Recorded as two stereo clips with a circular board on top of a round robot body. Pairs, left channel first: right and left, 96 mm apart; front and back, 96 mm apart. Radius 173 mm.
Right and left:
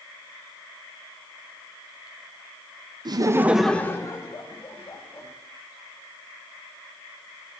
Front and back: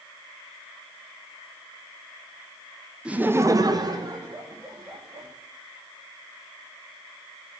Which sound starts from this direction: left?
Laughter, at 3.0 s.